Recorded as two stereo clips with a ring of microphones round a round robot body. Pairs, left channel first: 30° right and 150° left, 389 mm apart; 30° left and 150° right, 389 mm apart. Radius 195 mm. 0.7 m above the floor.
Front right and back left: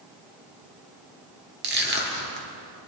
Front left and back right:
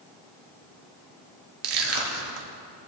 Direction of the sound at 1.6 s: 150° right.